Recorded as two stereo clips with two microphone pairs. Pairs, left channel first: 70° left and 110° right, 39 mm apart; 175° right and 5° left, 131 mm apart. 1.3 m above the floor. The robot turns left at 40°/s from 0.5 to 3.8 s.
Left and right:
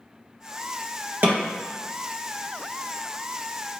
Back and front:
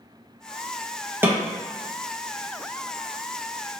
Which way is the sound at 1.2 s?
70° right.